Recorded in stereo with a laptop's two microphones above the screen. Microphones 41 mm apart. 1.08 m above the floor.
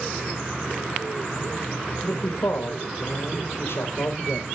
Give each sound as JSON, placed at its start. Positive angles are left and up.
{"t": 2.0, "sound": "a man speaking", "side_deg": 85, "distance_m": 1.1}